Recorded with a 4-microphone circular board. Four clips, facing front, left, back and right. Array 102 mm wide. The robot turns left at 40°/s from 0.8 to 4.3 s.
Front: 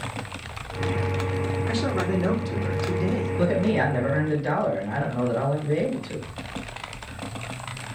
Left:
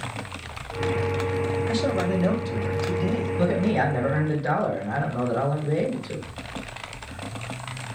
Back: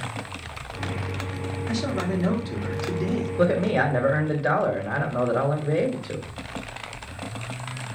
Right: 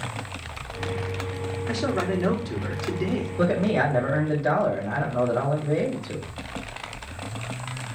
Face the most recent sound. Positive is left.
turn(degrees=-165)